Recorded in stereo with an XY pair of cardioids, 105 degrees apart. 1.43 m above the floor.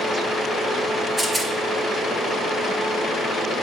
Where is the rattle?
20° right, 1.9 m.